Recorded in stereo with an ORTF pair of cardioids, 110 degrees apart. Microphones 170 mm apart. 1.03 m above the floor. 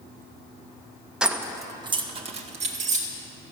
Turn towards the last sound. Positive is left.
turn(degrees=-45)